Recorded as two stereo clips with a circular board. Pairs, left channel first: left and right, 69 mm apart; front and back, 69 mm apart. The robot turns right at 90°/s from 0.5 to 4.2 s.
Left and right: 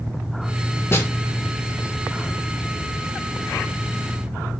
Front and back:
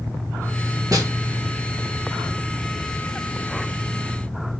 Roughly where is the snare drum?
Behind left.